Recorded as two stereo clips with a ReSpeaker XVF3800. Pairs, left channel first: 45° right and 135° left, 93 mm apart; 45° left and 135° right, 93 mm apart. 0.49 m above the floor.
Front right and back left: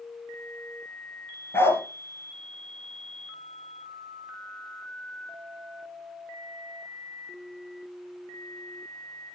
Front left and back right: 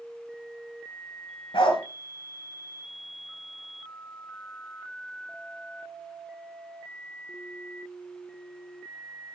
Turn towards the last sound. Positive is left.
turn(degrees=20)